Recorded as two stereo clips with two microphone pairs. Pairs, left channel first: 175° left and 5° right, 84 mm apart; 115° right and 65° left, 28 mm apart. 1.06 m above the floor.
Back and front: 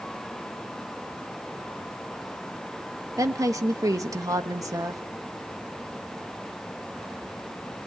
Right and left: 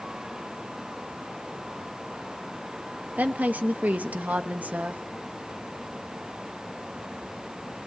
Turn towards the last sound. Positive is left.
turn(degrees=40)